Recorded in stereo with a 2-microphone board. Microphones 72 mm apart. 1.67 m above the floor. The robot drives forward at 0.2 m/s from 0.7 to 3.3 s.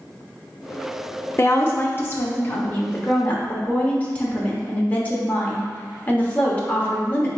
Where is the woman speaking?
40° left (ahead or behind), 0.6 m; by 7.3 s 25° left (ahead or behind), 0.9 m.